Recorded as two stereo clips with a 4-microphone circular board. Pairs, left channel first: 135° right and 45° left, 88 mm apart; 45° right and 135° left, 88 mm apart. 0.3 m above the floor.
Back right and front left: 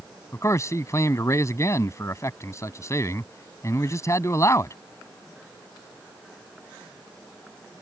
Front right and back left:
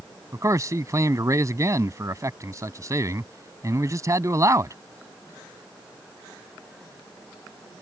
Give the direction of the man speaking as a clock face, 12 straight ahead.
6 o'clock.